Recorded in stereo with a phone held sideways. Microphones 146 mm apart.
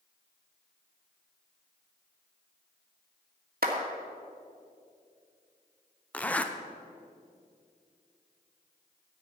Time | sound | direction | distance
3.6 | a clap | 70° right (ahead or behind) | 2.0 m
6.1 | a zipper | 10° left (ahead or behind) | 0.7 m